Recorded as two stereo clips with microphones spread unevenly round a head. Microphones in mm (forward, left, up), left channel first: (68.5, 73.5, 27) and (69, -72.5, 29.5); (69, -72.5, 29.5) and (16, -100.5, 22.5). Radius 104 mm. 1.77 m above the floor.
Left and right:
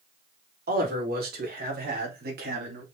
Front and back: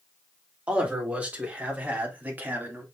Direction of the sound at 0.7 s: 85° right.